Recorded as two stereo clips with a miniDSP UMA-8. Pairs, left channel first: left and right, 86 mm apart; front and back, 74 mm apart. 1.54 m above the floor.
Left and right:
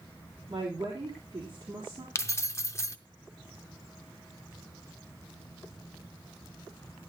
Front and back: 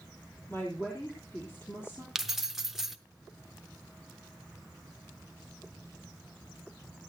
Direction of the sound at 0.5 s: 60° right.